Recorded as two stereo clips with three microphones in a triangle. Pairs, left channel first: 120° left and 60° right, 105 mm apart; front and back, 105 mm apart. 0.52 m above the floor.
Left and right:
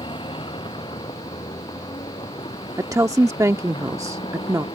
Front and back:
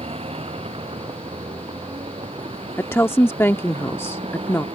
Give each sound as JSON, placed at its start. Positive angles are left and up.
{"t": 0.0, "sound": "a vehicle", "azimuth_deg": 155}
{"t": 2.8, "sound": "a woman speaking", "azimuth_deg": -45}